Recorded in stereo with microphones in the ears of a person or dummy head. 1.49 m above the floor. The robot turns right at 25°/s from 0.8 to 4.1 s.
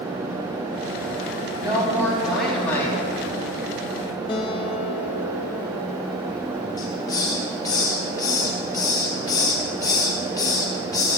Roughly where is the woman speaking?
Ahead.